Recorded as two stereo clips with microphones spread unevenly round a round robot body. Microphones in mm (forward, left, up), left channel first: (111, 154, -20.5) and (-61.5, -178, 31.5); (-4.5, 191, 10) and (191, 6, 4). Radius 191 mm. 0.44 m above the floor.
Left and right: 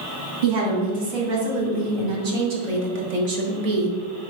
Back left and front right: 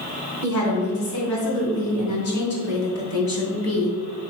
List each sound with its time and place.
0.4 s a woman speaking: 145° right, 3.5 m; by 4.0 s 135° right, 1.5 m